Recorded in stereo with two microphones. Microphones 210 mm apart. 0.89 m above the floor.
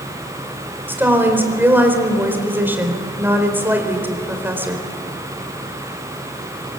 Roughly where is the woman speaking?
Centre.